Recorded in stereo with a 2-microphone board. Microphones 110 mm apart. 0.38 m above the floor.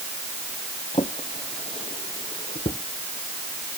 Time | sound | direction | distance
0.9 | a drawer | 65° left (ahead or behind) | ?